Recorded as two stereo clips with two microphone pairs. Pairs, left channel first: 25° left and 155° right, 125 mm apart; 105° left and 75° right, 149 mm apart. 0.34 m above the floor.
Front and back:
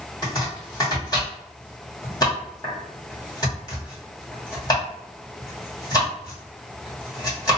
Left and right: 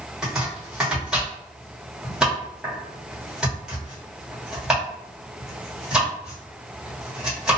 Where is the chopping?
5° left, 1.3 m.